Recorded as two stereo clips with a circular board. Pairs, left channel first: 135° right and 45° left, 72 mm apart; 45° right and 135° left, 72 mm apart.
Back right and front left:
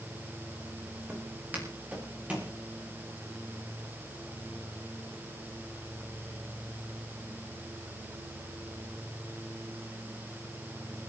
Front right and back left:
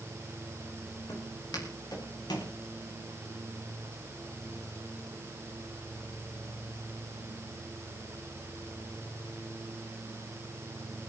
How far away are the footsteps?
About 6.5 m.